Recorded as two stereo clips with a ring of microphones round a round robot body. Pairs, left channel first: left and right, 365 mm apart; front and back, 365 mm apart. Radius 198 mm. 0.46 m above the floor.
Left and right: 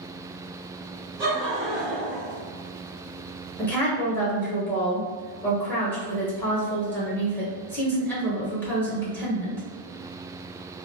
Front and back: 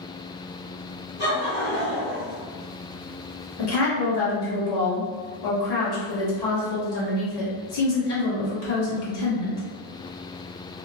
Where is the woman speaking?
5° left, 1.6 m.